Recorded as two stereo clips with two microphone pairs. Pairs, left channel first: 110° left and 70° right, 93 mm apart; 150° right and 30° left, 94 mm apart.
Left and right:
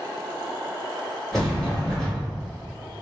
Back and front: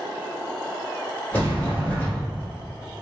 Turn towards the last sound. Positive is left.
turn(degrees=-175)